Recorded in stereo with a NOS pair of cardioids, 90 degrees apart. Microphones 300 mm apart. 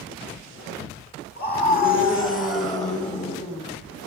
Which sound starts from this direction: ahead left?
A scream, at 1.4 s.